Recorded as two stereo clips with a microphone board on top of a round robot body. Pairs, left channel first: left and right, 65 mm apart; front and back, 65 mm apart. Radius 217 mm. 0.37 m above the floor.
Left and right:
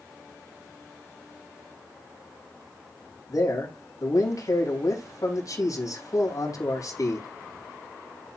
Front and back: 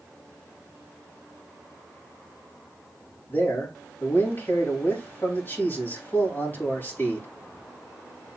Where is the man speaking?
55° left, 3.5 m.